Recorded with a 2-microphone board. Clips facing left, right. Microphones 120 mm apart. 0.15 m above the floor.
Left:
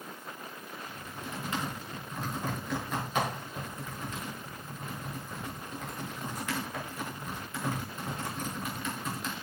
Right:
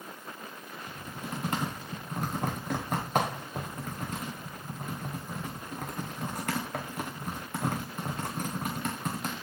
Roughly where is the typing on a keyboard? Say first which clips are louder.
Right 5 dB; right.